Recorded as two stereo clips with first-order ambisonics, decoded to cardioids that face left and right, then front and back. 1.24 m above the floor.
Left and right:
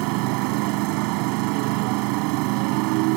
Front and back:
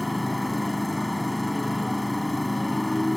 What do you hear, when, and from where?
0.0 s a motorcycle: 85° right